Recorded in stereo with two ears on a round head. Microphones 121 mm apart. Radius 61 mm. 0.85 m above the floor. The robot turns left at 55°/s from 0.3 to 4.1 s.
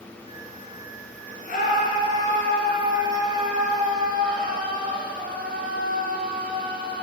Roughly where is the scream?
Left.